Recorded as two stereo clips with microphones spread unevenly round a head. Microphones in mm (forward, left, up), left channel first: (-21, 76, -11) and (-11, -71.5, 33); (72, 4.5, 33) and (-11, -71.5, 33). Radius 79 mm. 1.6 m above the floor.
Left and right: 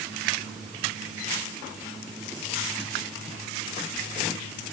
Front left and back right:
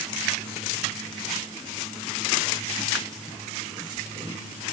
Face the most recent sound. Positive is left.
No sound to turn to.